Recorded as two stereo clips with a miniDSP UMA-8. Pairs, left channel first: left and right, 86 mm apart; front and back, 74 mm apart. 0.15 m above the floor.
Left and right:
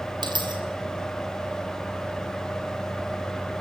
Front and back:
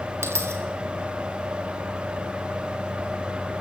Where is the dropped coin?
125° right, 2.5 m.